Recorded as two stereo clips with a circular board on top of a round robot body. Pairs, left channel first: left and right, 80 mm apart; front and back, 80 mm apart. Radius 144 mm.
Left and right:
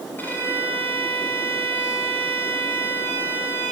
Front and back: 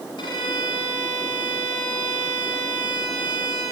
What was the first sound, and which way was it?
A violin, 25° left.